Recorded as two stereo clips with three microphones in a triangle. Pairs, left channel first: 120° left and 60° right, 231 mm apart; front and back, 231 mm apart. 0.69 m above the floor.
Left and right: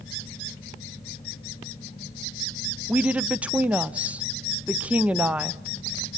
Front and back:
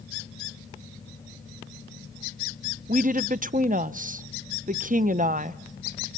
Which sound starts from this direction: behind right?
A woman speaking, at 2.9 s.